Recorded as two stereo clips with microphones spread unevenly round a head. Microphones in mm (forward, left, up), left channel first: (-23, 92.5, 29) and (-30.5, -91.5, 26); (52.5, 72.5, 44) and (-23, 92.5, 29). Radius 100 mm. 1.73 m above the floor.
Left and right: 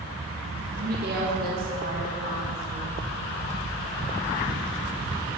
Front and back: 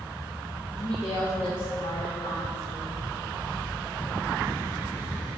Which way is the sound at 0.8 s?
45° right.